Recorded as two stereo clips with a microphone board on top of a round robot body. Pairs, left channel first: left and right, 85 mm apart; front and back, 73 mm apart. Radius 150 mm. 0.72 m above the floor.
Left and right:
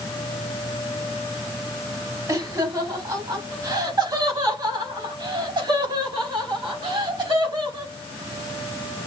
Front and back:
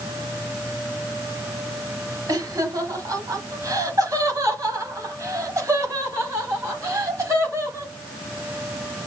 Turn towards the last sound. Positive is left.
turn(degrees=-125)